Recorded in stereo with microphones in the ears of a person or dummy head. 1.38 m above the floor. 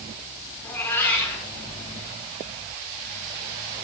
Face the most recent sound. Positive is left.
turn(degrees=10)  # may be behind; listen again after turning